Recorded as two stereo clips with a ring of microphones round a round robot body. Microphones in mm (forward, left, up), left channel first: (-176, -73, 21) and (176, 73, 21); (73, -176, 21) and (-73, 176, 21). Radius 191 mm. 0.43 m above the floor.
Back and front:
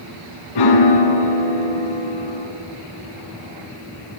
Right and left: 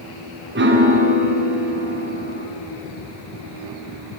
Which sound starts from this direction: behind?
A piano, at 0.6 s.